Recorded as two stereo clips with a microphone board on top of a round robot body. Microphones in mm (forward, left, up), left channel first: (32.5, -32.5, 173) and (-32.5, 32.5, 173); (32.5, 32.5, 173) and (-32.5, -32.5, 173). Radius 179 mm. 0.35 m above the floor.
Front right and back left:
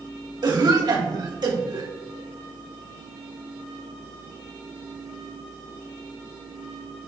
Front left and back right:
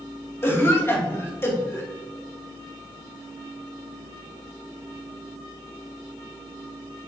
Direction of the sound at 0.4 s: 105° left.